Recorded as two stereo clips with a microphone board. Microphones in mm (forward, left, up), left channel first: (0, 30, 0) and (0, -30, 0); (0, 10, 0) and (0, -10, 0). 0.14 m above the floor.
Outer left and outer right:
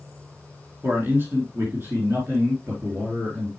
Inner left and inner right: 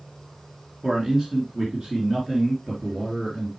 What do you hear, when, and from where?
0.8 s a man speaking: 35° right (ahead or behind), 2 m; by 3.5 s 40° right (ahead or behind), 3 m